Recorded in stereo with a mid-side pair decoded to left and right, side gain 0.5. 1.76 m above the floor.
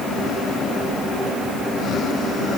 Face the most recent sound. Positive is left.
No sound to turn to.